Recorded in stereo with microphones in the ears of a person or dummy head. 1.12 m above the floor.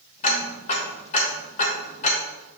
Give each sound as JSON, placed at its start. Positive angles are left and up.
{"t": 0.2, "sound": "ticking", "side_deg": 50, "distance_m": 1.4}